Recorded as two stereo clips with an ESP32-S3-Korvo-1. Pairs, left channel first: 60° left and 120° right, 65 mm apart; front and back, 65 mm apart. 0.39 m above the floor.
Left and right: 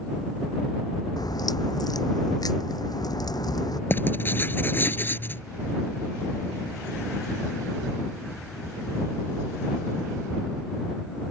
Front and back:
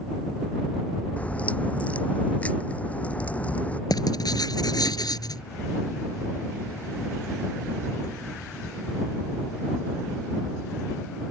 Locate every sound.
1.2 s a crack: 70° left
3.9 s writing: straight ahead